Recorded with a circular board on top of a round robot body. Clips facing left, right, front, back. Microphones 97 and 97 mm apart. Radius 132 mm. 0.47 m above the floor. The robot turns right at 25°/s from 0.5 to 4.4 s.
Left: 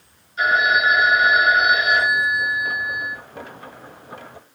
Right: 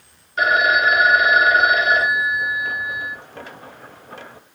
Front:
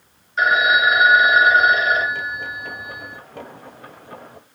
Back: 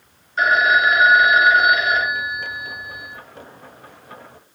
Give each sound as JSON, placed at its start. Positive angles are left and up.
{"t": 0.4, "sound": "a phone ringing", "azimuth_deg": -90, "distance_m": 0.9}